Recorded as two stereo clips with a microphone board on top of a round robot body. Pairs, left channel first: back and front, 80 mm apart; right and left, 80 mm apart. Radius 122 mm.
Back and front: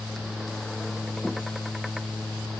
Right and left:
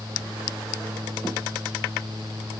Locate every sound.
Only background noise.